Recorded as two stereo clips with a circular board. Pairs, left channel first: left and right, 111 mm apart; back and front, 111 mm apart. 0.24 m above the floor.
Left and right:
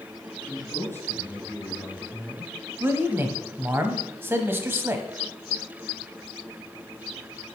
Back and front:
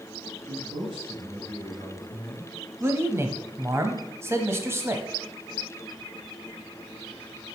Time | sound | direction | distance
0.5 | a man speaking | 25° left | 3 m
2.8 | a man speaking | 40° right | 1.1 m